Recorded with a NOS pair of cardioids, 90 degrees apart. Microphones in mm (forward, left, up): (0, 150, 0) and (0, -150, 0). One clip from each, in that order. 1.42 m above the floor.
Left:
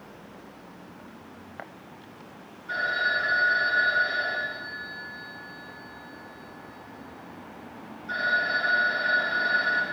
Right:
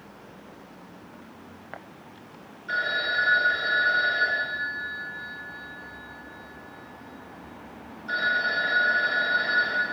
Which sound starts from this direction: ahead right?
A phone ringing, at 2.7 s.